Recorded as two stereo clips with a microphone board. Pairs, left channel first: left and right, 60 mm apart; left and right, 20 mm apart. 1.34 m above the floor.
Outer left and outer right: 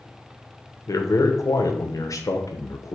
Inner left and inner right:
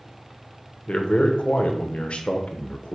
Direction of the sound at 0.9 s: 65° left (ahead or behind).